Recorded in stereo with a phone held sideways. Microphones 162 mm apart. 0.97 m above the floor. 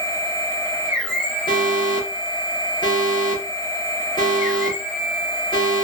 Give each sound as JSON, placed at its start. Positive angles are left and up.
{"t": 0.0, "sound": "a machine running", "side_deg": 60, "distance_m": 1.3}
{"t": 1.5, "sound": "an alarm", "side_deg": 30, "distance_m": 1.2}